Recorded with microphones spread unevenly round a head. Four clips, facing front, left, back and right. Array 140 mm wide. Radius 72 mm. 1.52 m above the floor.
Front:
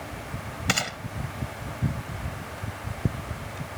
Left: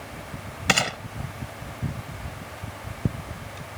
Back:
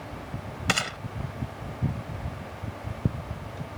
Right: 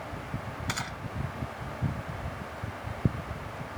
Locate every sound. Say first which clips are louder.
0.7 s a gunshot: left 13 dB, even; 105° left